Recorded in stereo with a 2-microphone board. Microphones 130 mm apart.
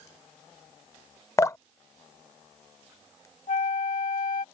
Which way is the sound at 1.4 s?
25° left (ahead or behind).